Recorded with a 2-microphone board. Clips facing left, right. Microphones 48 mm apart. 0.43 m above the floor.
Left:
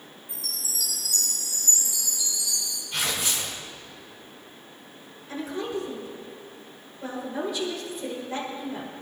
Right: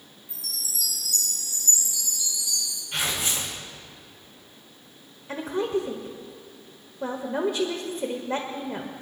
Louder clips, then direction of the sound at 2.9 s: Even; 35° right (ahead or behind).